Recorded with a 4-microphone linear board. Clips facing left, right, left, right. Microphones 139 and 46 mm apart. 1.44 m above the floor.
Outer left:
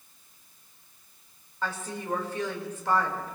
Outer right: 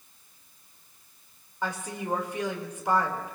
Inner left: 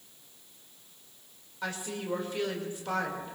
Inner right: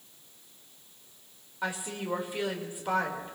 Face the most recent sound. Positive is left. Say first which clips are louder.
# outer right 1 dB, inner right 1 dB
turn(degrees=-15)  # may be behind; listen again after turning